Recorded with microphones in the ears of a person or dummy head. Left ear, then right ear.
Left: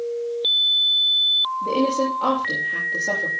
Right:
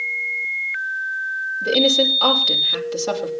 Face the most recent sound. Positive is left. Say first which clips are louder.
# right 5 dB
turn(degrees=-85)